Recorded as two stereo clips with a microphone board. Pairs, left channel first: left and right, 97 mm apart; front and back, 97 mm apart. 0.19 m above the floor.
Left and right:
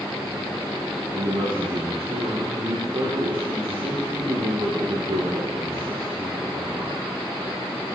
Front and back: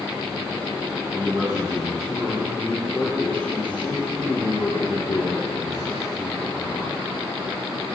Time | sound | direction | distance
1.1 | a man speaking | 100° right | 5.5 m